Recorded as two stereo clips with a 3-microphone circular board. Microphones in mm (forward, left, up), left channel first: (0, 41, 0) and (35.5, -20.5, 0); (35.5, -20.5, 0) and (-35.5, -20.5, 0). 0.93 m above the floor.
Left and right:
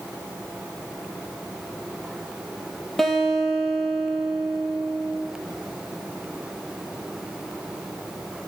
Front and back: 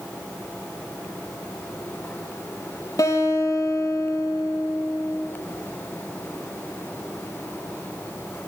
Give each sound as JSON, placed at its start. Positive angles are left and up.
{"t": 3.0, "sound": "a guitar", "azimuth_deg": 35, "distance_m": 5.5}